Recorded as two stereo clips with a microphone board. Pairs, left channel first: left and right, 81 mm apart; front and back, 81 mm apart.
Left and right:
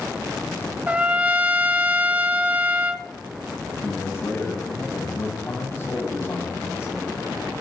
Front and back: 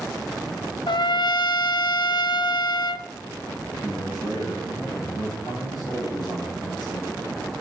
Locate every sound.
0.9 s a trumpet: 20° right, 0.9 m
3.8 s a man speaking: 30° left, 7 m